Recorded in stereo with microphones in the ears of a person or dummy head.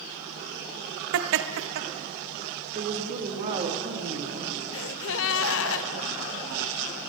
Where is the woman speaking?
40° right (ahead or behind), 2 m.